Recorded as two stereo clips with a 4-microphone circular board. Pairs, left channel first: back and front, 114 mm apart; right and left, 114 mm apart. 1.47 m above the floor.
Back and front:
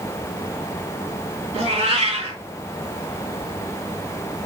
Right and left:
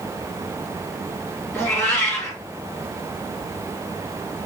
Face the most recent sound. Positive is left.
turn(degrees=-25)